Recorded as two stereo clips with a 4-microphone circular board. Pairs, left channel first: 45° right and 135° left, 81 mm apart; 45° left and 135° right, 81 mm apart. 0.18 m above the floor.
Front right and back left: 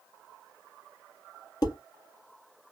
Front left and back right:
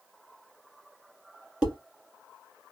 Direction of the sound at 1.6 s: 60° right.